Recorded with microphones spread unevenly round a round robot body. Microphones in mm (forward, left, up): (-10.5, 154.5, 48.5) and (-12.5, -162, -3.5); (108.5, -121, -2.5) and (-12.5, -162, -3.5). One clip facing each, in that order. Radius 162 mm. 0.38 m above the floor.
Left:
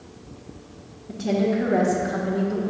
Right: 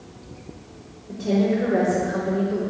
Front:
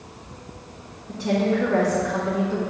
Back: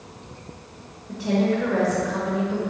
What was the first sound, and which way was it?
A woman speaking, 115° left.